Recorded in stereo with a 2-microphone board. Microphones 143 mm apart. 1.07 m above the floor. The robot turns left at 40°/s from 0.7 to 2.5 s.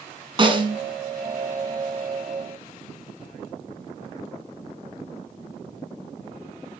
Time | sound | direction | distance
0.4 | a snare drum | 35° right (ahead or behind) | 2 m